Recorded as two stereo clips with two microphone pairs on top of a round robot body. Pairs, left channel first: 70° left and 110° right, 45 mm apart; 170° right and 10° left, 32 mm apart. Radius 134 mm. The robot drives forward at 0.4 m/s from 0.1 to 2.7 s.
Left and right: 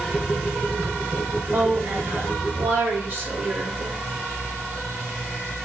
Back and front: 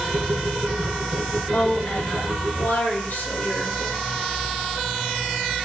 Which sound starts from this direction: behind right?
A woman speaking, at 1.5 s.